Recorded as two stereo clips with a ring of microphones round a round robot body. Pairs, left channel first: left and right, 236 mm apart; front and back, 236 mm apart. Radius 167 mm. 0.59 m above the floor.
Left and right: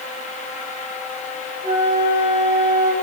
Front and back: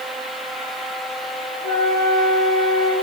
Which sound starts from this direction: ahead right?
A flute, at 1.6 s.